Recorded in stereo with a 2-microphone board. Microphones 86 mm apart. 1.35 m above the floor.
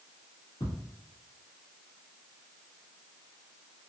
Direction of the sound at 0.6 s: 80° left.